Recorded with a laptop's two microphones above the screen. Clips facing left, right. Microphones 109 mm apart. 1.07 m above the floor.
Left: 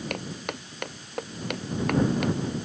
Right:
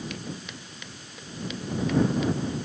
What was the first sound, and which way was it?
Footsteps, 60° left (ahead or behind).